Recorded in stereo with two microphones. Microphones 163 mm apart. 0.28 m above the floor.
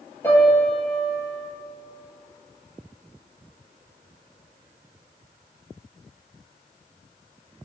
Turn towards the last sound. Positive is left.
turn(degrees=15)  # may be behind; listen again after turning